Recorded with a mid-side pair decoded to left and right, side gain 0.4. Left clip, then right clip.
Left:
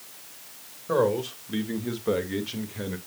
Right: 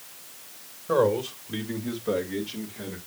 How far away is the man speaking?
About 2.5 m.